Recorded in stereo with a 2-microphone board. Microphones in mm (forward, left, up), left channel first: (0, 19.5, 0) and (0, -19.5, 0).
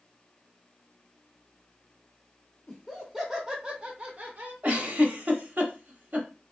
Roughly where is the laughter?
Centre.